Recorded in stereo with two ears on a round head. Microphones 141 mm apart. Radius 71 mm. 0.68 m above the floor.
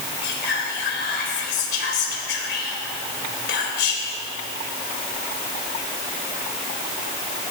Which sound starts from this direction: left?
Whispering, at 0.2 s.